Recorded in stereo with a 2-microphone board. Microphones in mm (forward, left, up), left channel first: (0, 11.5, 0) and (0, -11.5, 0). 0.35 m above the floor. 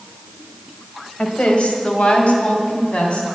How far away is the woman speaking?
About 1.5 m.